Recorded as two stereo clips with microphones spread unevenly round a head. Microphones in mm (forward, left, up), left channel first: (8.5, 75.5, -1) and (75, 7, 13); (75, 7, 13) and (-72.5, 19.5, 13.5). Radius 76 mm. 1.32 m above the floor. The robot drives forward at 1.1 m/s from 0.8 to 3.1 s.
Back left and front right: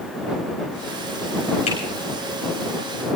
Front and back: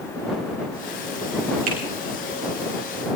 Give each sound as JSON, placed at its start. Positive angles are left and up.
{"t": 1.7, "sound": "a finger snap", "azimuth_deg": 150, "distance_m": 5.5}